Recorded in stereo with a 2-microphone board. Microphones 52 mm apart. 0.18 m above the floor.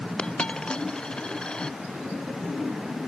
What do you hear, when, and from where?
0.2 s a dropped coin: 15° left (ahead or behind)